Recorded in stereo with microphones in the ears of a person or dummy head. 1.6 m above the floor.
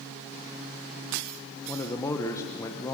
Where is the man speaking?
15° left (ahead or behind), 0.9 m.